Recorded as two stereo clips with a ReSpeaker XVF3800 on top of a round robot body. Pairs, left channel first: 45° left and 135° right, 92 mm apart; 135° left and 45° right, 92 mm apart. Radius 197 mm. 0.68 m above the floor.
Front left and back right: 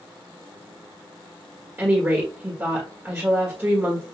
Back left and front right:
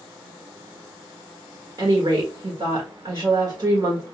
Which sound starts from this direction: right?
A woman speaking, at 1.8 s.